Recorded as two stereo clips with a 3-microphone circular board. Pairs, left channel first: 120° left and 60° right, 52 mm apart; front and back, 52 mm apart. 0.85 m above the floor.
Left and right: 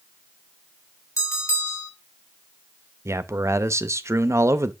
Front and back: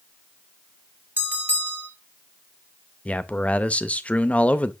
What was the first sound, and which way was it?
A bell, 135° left.